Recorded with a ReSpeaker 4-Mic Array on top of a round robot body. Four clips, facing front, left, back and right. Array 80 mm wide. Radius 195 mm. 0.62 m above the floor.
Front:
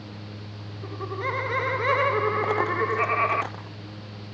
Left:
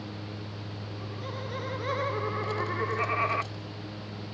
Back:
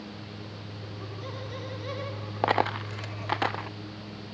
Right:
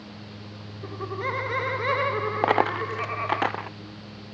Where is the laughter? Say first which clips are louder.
Right 12 dB, front 12 dB; 55° right; by 3.4 s 15° left.